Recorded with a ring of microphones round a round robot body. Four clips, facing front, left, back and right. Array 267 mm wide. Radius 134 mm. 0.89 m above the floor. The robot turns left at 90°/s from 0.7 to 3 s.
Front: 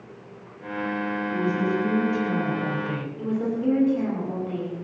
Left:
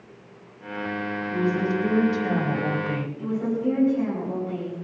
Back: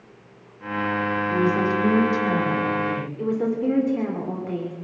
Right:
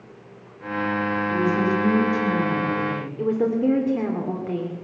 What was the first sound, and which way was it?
A woman speaking, 145° right.